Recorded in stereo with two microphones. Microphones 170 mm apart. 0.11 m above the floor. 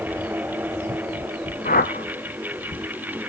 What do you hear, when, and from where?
1.6 s a whoosh: 60° left (ahead or behind), 1.3 m